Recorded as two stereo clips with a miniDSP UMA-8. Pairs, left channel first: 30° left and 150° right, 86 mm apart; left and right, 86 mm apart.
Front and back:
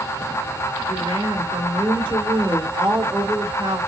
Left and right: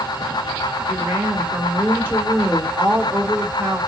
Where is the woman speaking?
155° right, 1.9 m.